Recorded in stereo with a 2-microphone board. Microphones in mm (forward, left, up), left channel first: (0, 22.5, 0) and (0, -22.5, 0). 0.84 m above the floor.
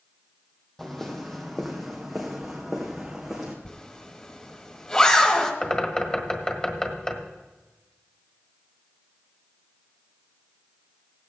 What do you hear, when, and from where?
0.8 s footsteps: 10° left (ahead or behind), 1.7 m; by 3.5 s 5° right (ahead or behind), 3 m
3.6 s a zipper: 25° left (ahead or behind), 1.5 m
5.6 s a bird: 20° left (ahead or behind), 1.5 m